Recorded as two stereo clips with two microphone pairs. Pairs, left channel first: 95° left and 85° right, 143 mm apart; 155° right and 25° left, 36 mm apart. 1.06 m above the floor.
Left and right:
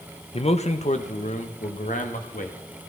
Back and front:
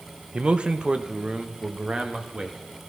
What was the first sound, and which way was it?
A man speaking, 80° left.